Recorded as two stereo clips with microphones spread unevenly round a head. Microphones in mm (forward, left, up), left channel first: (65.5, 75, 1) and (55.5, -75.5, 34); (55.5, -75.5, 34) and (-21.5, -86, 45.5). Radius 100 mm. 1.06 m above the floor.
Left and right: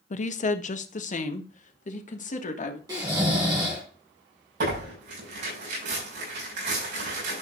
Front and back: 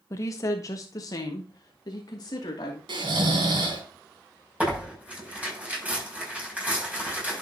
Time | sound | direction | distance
0.1 | a woman speaking | 60° left | 1.0 m
2.9 | snoring | 165° right | 3.5 m
4.6 | tearing paper | 100° right | 6.5 m